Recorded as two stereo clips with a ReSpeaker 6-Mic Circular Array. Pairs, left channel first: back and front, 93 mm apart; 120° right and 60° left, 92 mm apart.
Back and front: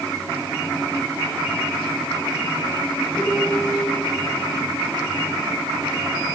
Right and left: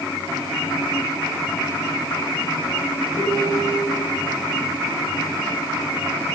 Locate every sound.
3.1 s a piano: 105° left, 7 m